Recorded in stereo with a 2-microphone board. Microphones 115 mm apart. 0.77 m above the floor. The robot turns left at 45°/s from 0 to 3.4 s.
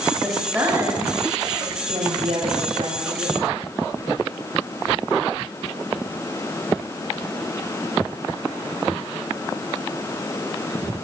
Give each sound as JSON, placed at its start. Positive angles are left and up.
{"t": 0.2, "sound": "a woman speaking", "azimuth_deg": 5, "distance_m": 8.5}